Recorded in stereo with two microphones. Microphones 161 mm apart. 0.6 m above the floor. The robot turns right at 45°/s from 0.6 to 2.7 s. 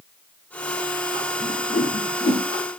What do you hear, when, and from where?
1.4 s a whoosh: 55° left (ahead or behind), 1.3 m; by 2.4 s 45° left (ahead or behind), 1.3 m